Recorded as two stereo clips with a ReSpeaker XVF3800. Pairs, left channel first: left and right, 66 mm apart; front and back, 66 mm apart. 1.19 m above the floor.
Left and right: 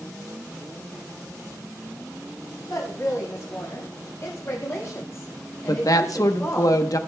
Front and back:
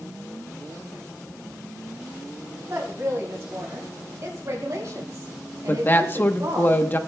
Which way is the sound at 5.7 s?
60° left.